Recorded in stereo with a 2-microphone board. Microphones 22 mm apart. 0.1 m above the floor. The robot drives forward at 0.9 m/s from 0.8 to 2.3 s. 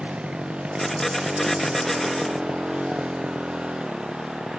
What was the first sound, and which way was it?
A motorcycle, 70° right (ahead or behind).